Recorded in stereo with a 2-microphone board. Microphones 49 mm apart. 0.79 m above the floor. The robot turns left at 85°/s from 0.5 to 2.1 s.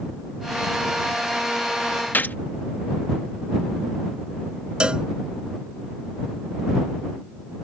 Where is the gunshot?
40° left (ahead or behind).